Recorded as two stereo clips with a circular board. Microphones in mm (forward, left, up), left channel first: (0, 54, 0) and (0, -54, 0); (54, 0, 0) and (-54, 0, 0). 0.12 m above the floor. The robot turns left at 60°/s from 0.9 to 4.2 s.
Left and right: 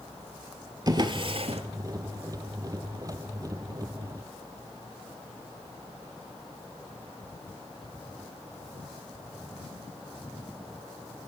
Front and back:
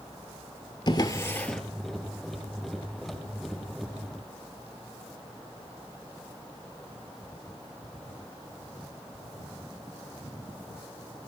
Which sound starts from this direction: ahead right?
A drawer, at 0.9 s.